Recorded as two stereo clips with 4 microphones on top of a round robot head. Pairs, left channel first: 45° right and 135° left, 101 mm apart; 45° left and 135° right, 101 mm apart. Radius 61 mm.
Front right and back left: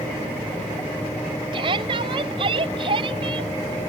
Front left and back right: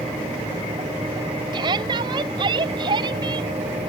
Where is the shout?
175° left.